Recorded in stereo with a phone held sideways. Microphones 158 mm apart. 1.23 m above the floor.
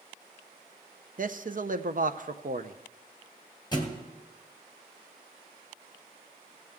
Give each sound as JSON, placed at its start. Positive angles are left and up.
{"t": 1.2, "sound": "a man speaking", "side_deg": -60, "distance_m": 0.6}
{"t": 3.7, "sound": "a thud", "side_deg": 30, "distance_m": 1.8}